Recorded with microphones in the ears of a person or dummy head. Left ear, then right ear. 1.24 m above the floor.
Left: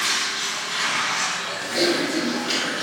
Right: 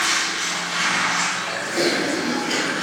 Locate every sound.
0.0 s running water: 5° left (ahead or behind), 1.6 m
1.6 s typing on a keyboard: 50° left (ahead or behind), 1.5 m